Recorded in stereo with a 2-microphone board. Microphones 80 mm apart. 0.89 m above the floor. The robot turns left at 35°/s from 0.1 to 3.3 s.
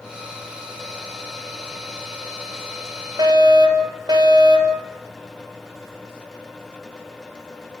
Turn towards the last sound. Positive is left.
turn(degrees=-70)  # may be behind; listen again after turning